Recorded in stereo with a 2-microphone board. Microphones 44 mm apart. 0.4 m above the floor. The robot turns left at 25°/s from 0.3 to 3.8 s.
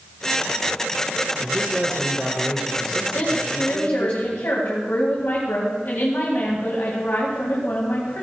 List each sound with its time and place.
1.4 s a man speaking: 170° right, 1.8 m; by 4.1 s 130° left, 1.8 m
3.1 s a woman speaking: 65° left (ahead or behind), 2.5 m; by 8.2 s 60° left (ahead or behind), 2.5 m